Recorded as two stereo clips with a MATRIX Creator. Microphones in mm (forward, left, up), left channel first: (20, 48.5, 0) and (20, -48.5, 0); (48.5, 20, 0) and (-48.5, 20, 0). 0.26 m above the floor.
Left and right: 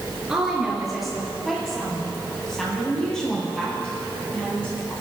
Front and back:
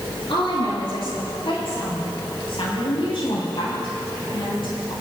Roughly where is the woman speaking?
Ahead.